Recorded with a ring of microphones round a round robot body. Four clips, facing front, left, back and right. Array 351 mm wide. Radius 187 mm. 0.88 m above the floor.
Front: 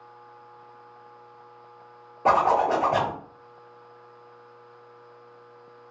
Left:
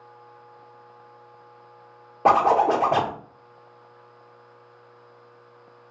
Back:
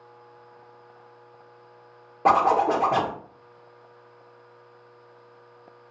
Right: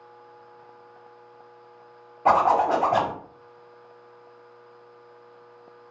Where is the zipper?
115° left, 1.1 m.